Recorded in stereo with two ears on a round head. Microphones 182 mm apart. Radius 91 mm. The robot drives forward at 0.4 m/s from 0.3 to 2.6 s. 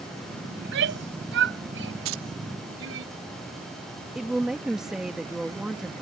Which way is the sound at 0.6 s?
60° right (ahead or behind).